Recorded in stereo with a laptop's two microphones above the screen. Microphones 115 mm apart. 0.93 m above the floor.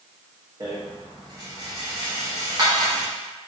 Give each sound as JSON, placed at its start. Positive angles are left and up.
{"t": 0.6, "sound": "a rattle", "side_deg": -35, "distance_m": 1.0}